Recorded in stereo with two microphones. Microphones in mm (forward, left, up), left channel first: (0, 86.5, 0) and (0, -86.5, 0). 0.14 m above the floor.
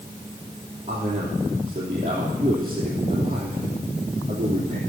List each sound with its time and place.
0.9 s a man speaking: 35° right (ahead or behind), 3 m